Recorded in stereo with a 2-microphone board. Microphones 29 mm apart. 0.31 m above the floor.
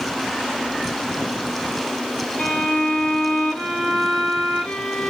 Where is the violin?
45° left (ahead or behind), 3 m.